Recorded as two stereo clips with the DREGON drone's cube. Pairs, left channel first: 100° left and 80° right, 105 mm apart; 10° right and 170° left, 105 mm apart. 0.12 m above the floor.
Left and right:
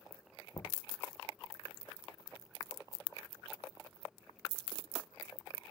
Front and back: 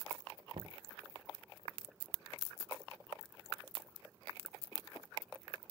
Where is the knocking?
155° left.